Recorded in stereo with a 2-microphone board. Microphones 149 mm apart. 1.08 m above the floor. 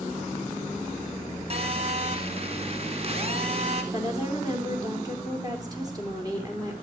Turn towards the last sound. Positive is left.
turn(degrees=-25)  # may be behind; listen again after turning